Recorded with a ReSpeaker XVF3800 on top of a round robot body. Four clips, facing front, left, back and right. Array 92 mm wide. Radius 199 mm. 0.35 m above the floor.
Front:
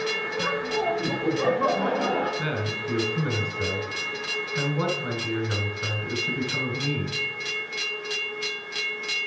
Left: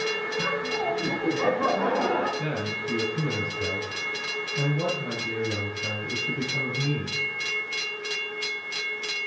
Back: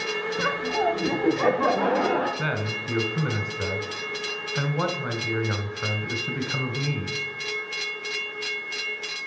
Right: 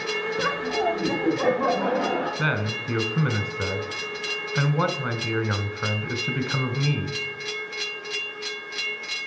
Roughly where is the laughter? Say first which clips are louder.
Right 4 dB, back 2 dB; behind right.